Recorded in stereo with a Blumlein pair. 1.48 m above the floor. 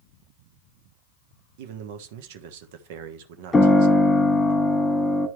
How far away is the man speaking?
About 1.3 m.